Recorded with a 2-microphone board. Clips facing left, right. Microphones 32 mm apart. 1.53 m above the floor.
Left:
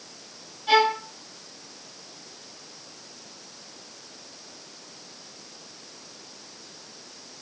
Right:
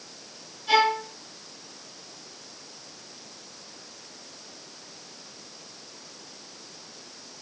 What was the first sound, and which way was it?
A violin, 25° left (ahead or behind).